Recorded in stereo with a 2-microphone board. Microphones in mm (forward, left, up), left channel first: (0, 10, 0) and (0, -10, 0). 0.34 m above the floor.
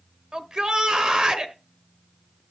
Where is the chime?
I don't hear a chime.